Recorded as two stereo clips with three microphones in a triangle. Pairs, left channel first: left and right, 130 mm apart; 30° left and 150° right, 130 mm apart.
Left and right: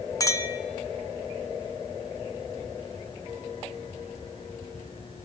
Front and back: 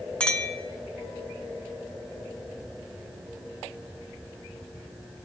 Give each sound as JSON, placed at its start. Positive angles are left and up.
{"t": 0.2, "sound": "a clink", "azimuth_deg": 100, "distance_m": 0.5}